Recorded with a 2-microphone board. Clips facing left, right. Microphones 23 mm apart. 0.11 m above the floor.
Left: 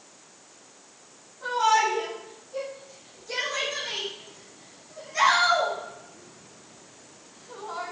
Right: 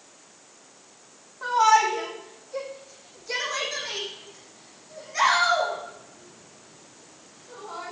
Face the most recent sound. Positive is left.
turn(degrees=10)  # may be behind; listen again after turning